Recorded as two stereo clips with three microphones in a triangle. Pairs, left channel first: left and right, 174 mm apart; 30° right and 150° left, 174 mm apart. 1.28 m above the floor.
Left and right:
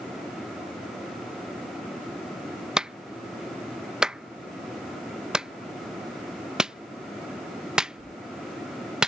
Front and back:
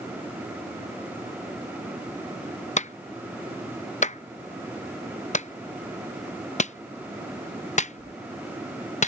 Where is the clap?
5° right.